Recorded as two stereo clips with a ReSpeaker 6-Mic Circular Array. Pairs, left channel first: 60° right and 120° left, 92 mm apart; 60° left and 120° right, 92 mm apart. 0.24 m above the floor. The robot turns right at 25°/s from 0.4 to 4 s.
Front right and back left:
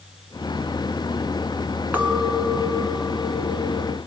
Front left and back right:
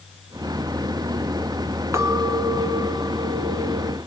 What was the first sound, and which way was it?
A clink, 170° right.